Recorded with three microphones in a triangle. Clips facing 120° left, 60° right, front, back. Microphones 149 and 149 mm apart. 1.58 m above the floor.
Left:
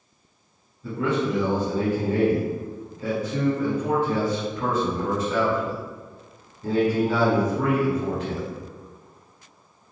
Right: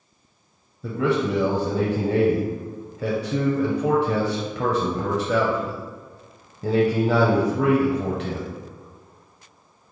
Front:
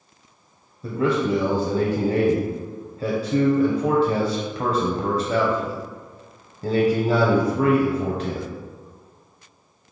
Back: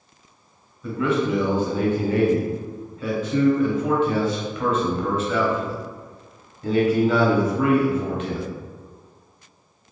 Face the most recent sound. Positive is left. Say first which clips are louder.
# right 2 dB, front 1 dB
turn(degrees=-55)